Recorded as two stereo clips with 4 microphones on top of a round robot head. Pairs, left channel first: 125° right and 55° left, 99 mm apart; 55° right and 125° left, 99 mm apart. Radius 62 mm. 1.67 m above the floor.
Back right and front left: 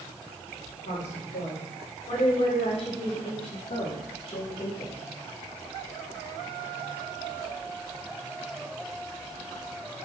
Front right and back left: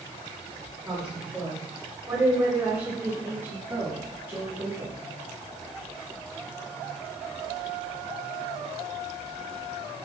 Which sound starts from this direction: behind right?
A woman speaking, at 0.8 s.